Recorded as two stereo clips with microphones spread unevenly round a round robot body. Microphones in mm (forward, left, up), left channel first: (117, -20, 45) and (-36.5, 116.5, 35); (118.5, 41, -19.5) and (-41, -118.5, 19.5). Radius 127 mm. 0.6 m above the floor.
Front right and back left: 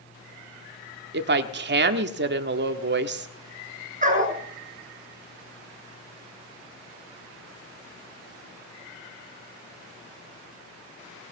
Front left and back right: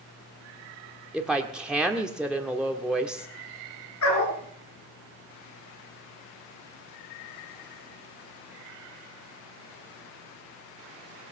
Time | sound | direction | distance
1.1 | a woman speaking | 130° left | 1.5 m
4.0 | a dog barking | 85° left | 3.5 m